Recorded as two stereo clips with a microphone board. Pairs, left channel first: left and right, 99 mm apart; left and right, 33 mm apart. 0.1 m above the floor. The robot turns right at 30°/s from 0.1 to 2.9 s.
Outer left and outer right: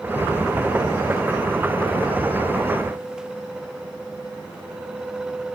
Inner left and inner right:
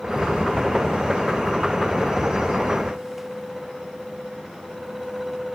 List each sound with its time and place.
Only background noise.